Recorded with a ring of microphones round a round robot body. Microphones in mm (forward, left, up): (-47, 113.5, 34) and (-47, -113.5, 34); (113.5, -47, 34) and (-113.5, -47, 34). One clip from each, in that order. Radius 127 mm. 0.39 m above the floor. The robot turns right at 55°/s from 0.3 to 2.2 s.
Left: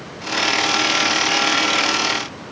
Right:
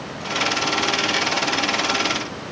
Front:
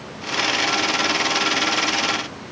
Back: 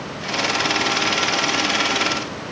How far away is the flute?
I don't hear a flute.